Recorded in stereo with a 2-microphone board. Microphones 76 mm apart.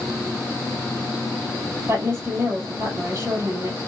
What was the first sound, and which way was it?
A woman speaking, 40° right (ahead or behind).